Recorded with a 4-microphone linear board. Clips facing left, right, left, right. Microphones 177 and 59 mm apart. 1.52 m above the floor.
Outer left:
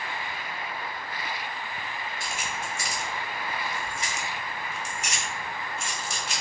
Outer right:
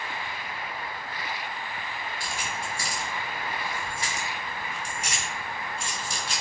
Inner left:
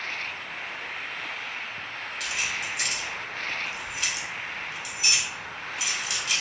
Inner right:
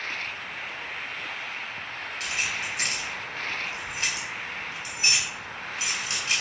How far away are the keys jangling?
About 0.8 m.